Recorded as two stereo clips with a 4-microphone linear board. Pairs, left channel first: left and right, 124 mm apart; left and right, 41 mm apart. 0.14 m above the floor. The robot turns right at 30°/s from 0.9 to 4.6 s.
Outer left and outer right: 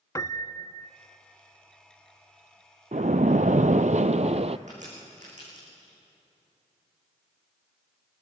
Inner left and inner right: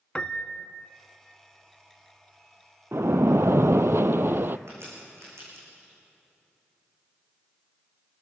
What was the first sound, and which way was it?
A piano, 25° left (ahead or behind).